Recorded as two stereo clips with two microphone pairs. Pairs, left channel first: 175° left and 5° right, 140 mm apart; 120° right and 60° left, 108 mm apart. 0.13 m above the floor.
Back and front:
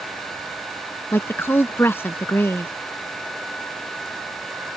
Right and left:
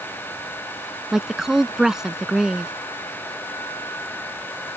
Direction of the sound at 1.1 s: 140° left.